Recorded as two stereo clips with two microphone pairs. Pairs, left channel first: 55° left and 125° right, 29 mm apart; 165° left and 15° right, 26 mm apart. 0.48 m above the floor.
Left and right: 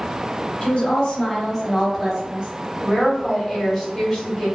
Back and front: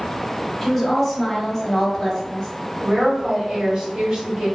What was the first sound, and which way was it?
A woman speaking, 85° left.